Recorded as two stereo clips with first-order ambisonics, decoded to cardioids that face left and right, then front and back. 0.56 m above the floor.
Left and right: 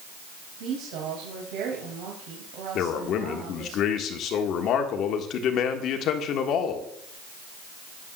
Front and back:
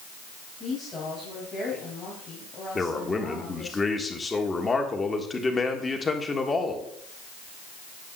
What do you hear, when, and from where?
0.6 s a woman speaking: 75° right, 3.5 m
2.8 s a man speaking: 70° left, 1.5 m